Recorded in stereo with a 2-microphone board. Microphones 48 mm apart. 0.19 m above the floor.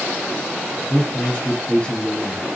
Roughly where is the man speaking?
Left.